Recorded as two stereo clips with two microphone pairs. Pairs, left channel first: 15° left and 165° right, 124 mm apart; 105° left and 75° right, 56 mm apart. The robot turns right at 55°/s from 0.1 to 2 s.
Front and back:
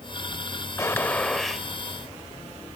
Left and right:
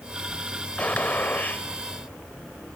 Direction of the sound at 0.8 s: 70° left.